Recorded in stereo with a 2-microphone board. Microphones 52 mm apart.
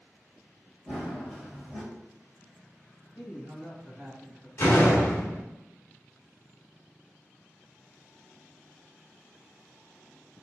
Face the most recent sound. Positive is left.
turn(degrees=55)  # may be behind; listen again after turning